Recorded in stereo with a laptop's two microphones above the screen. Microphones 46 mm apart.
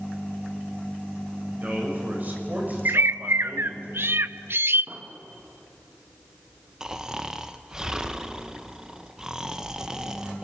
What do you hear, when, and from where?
1.5 s a man speaking: 40° right (ahead or behind), 6 m
2.9 s a bird: 60° right (ahead or behind), 0.5 m
4.9 s an explosion: 50° right (ahead or behind), 1.6 m
6.8 s snoring: 15° right (ahead or behind), 0.7 m